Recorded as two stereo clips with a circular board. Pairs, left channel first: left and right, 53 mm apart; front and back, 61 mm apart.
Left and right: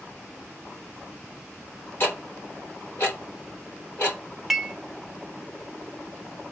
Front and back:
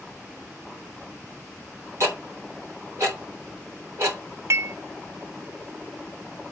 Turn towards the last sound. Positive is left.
turn(degrees=-175)